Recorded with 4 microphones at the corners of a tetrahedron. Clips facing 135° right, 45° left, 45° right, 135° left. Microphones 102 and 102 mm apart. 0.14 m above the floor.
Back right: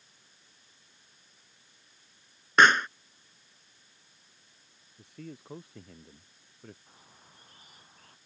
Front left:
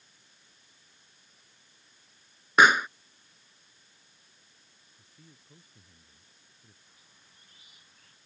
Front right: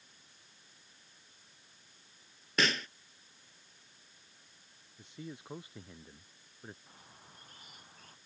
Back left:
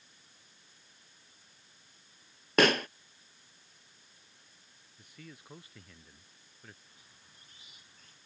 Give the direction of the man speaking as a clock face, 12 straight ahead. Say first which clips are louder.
Back right 15 dB, front right 6 dB; 4 o'clock.